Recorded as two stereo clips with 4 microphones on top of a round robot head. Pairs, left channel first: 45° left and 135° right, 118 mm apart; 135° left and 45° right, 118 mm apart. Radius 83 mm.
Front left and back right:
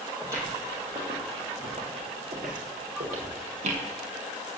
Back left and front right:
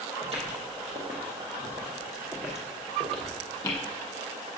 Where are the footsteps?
75° right, 2.5 m; by 3.8 s 160° right, 2 m.